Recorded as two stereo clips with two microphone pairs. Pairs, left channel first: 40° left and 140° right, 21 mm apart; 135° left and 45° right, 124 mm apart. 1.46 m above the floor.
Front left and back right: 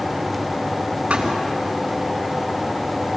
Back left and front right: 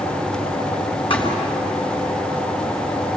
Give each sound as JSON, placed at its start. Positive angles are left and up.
{"t": 1.1, "sound": "a thud", "azimuth_deg": -175, "distance_m": 6.5}